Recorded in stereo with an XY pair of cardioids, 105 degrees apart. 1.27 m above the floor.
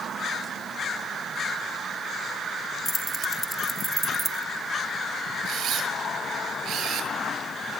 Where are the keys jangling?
20° left, 1.1 m; by 4.4 s 25° right, 1.0 m.